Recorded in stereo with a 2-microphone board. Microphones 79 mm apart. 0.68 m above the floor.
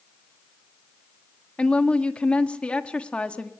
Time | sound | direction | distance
1.6 | a woman speaking | 15° left (ahead or behind) | 1.3 m